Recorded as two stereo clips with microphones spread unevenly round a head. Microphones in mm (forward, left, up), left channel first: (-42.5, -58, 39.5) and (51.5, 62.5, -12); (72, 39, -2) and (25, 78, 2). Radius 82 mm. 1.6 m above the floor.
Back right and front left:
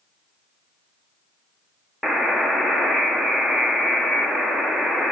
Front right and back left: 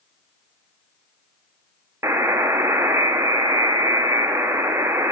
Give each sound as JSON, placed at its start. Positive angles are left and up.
{"t": 2.0, "sound": "a buzzer", "azimuth_deg": 160, "distance_m": 0.6}